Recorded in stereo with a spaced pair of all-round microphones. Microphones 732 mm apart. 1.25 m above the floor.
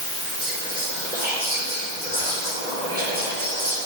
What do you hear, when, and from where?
0.4 s whispering: 10° right (ahead or behind), 4.5 m